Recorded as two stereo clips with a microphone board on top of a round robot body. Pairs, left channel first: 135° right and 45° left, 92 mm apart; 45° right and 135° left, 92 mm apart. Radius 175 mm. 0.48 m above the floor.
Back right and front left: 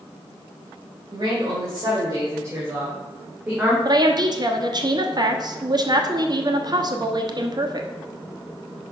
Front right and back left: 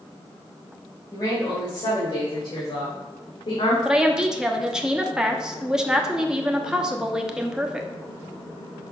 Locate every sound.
1.1 s a woman speaking: straight ahead, 2.5 m; by 3.8 s 30° right, 2.0 m
3.9 s a woman speaking: 55° left, 1.3 m